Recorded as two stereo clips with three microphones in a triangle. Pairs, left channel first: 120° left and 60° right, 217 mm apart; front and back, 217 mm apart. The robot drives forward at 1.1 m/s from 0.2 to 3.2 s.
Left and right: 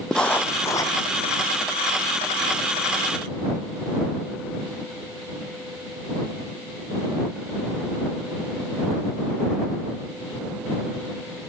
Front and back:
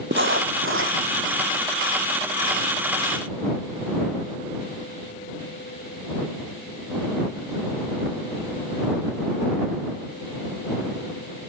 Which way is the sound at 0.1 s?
155° right.